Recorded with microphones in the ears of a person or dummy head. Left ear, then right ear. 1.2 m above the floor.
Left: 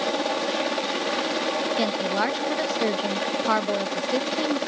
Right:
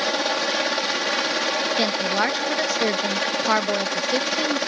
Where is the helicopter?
55° right (ahead or behind).